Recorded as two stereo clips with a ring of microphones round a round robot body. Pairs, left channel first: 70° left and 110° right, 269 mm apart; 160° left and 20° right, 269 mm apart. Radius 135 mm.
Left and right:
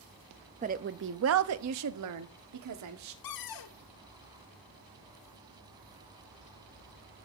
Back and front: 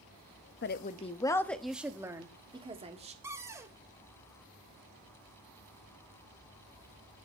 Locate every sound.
0.6 s a woman speaking: 170° right, 0.8 m; by 3.1 s 90° right, 1.8 m
3.2 s a cupboard door: 55° left, 1.1 m